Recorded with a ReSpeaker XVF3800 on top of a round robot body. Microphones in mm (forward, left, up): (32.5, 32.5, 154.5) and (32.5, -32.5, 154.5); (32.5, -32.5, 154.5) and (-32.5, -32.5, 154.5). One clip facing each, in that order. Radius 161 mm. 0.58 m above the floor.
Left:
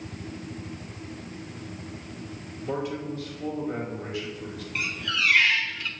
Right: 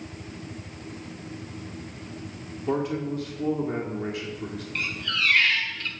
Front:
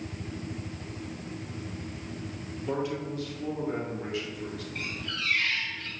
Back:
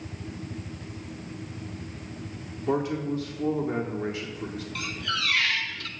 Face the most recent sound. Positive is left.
turn(degrees=175)